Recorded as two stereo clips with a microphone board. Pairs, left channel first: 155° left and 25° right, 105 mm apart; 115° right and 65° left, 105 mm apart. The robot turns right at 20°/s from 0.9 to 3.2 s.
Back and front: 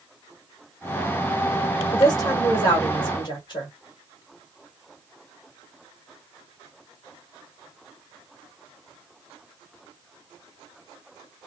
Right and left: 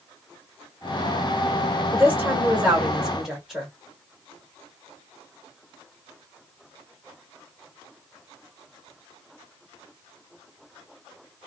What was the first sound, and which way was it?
A woman speaking, 125° left.